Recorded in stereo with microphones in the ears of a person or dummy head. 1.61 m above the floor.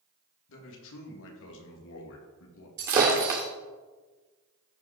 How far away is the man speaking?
About 2.5 m.